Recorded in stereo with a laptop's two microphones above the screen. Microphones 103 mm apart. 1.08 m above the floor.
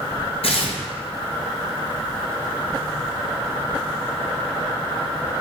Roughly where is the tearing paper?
Left.